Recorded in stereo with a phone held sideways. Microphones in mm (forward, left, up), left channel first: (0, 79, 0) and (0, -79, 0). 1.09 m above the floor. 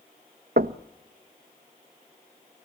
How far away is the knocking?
About 0.6 m.